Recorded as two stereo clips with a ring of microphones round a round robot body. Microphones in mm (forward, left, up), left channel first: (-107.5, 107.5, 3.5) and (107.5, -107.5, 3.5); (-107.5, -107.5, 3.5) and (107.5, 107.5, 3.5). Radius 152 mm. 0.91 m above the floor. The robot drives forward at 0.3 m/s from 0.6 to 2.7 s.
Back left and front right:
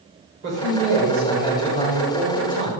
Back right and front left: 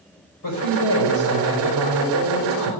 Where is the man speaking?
100° right, 4 m; by 2.7 s 110° right, 4.5 m.